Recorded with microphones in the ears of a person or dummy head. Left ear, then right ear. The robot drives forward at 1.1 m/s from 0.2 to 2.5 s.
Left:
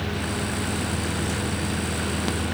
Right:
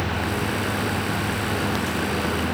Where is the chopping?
I don't hear chopping.